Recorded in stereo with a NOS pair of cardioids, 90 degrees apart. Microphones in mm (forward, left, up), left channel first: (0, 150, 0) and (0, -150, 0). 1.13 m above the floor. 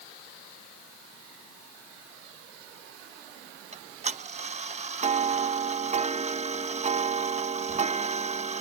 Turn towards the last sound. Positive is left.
turn(degrees=-20)